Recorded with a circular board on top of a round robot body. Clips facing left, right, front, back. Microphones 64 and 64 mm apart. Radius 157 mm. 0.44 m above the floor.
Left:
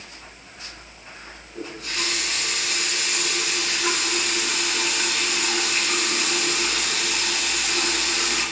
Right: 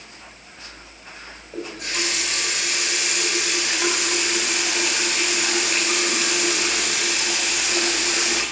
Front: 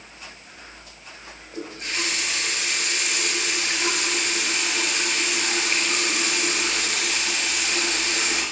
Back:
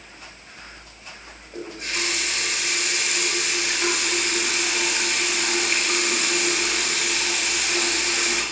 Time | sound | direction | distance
1.5 | a running tap | 110° right | 8 m